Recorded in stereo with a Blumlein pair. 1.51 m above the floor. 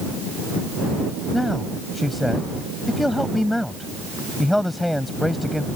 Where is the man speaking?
5° left.